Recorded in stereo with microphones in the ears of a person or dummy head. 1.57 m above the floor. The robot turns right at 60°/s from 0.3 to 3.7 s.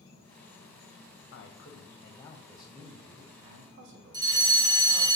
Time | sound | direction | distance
0.0 | an insect | 70° left | 1.2 m
1.3 | a man speaking | 105° left | 0.6 m
4.1 | a fire alarm | 20° right (ahead or behind) | 1.6 m